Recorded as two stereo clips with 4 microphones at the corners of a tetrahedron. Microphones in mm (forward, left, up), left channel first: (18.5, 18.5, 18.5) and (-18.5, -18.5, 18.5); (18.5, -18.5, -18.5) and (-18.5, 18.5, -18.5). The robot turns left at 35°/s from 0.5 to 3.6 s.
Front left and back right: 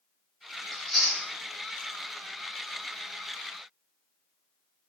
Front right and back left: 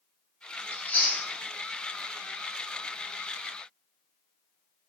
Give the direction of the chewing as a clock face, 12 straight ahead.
1 o'clock.